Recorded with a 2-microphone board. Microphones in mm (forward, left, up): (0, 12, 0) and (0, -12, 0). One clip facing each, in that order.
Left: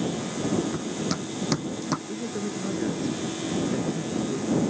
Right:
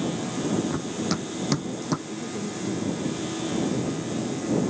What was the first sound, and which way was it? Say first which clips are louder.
Running footsteps: right 1 dB; 15° right (ahead or behind).